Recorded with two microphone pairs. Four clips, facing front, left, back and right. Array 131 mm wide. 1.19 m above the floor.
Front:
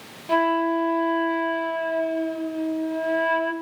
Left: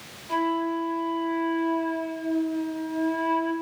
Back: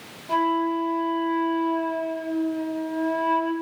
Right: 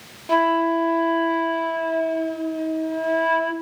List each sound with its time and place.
0.3 s a flute: 60° right, 1.6 m